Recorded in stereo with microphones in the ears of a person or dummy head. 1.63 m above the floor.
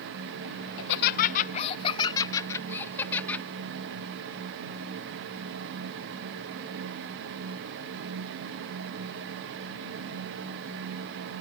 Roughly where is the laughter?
Left.